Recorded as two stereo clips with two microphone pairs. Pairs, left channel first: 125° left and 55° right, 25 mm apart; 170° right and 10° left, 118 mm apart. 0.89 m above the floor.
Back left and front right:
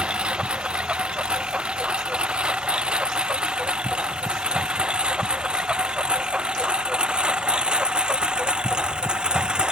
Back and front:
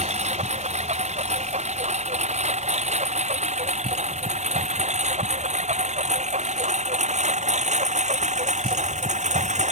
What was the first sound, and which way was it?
A lawn mower, 10° right.